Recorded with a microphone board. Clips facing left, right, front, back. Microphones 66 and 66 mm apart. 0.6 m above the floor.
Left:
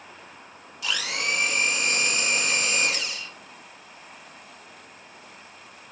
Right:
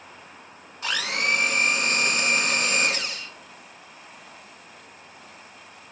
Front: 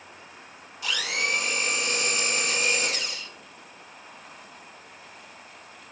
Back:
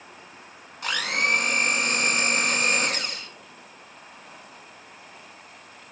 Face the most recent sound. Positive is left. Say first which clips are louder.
# right 3 dB, back 3 dB
turn(degrees=-140)